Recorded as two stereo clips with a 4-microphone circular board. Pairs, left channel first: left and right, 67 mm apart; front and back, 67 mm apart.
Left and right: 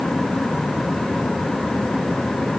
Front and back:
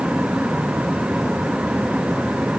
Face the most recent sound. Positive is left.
No sound to turn to.